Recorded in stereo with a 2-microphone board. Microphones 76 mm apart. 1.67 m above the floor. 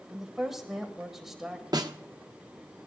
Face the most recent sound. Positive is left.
turn(degrees=-60)  # may be behind; listen again after turning